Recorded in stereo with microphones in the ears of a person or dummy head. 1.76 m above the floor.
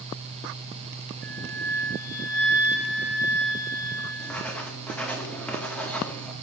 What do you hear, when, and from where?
1.2 s a flute: 10° left (ahead or behind), 4 m
4.2 s writing: 10° left (ahead or behind), 1.8 m